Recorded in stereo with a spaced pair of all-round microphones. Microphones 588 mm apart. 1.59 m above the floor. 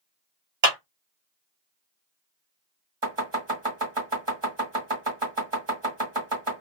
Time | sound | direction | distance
0.6 | a clap | 70° right (ahead or behind) | 1.8 m
3.0 | chopping | 55° right (ahead or behind) | 1.7 m